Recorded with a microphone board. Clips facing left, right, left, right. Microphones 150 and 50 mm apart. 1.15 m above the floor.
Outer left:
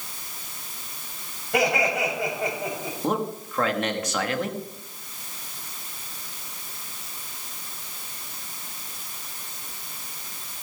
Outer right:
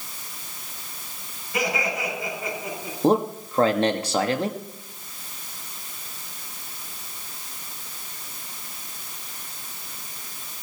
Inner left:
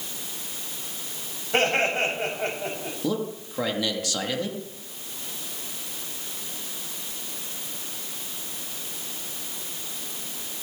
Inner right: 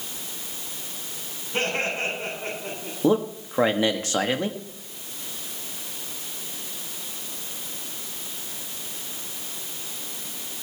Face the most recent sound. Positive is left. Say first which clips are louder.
# outer right 7 dB, inner right 7 dB
turn(degrees=-30)  # may be behind; listen again after turning